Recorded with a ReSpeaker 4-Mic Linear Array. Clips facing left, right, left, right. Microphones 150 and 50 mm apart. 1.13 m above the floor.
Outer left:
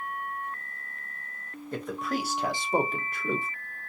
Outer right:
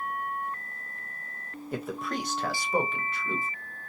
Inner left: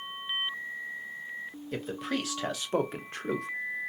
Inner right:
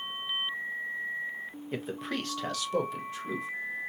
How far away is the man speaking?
About 0.9 m.